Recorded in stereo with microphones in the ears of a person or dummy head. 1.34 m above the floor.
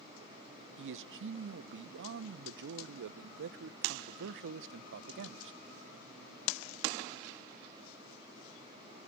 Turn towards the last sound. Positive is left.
turn(degrees=-60)  # may be behind; listen again after turning